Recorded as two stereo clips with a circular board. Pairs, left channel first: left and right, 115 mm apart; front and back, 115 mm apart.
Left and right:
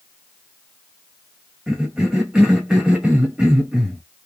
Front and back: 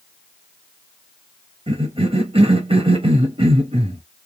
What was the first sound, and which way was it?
A cough, 175° right.